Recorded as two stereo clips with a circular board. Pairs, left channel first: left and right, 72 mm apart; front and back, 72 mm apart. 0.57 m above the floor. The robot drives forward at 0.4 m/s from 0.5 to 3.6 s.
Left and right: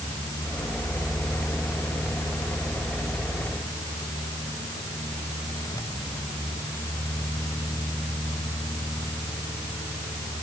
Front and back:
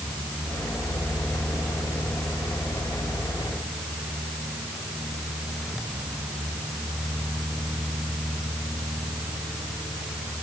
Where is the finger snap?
I don't hear a finger snap.